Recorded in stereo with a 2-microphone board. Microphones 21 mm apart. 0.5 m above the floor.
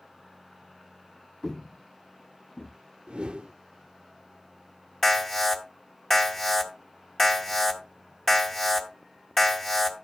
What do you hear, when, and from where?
1.4 s footsteps: 30° left (ahead or behind), 0.9 m; by 2.8 s 60° left (ahead or behind), 1.4 m
3.1 s a whoosh: 60° right (ahead or behind), 0.6 m
5.0 s an alarm: 20° left (ahead or behind), 2 m